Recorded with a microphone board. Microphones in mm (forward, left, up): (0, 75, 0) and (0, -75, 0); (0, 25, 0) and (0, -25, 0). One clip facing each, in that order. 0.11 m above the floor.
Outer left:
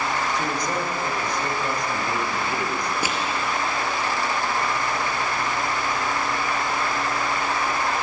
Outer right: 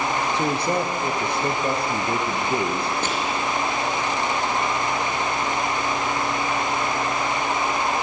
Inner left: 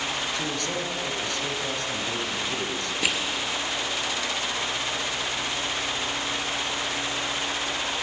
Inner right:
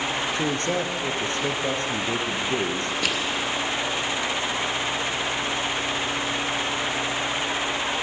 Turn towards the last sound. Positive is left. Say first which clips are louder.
# outer right 1 dB, inner left 1 dB
turn(degrees=10)  # may be behind; listen again after turning